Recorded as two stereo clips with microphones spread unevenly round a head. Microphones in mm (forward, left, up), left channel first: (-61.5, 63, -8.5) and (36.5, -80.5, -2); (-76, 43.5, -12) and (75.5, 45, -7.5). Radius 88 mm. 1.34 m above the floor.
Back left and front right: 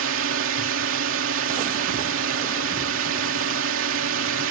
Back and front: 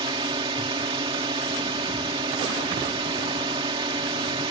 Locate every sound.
0.0 s a drone: 65° right